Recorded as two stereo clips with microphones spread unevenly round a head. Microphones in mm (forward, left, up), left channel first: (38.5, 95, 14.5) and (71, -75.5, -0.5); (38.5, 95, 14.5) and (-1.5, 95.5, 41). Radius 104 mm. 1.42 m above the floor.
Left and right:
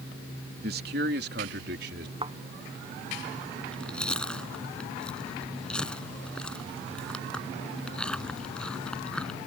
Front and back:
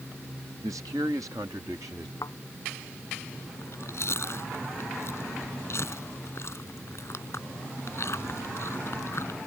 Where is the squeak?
No squeak in this recording.